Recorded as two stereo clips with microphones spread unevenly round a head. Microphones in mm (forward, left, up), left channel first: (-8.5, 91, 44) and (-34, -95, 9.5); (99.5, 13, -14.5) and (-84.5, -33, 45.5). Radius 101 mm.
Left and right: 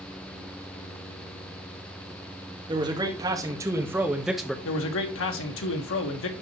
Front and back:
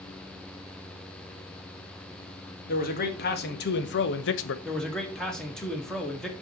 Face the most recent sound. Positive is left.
turn(degrees=100)